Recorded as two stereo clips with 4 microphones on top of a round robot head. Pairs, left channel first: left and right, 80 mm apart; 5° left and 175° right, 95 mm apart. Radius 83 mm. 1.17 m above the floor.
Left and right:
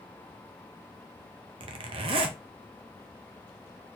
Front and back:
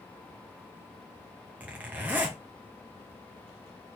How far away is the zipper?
About 0.7 m.